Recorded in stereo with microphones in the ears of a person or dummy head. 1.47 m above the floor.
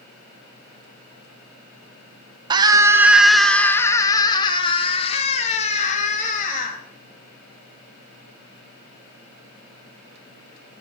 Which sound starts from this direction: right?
A scream, at 2.5 s.